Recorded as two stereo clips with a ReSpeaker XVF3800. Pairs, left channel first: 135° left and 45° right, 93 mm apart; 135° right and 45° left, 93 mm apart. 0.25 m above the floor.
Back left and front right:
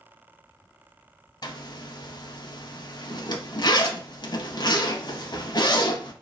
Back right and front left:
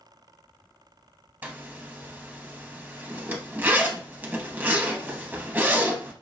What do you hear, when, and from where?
1.4 s a zipper: 110° left, 0.5 m